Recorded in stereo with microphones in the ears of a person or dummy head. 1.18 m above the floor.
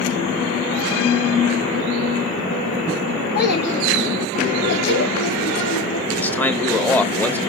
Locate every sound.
3.4 s a child speaking: 50° left (ahead or behind), 1.6 m; by 6.0 s 60° left (ahead or behind), 2 m
6.1 s a man speaking: 10° left (ahead or behind), 1.1 m